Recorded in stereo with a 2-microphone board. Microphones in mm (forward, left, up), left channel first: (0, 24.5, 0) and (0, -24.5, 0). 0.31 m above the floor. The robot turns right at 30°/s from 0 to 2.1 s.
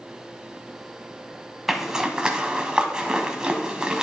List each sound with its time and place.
1.7 s a zipper: 5° right (ahead or behind), 0.8 m; by 4.0 s 15° right (ahead or behind), 0.8 m